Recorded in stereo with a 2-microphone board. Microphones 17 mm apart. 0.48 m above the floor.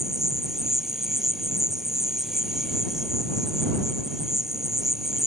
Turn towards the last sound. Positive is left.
turn(degrees=-30)  # may be behind; listen again after turning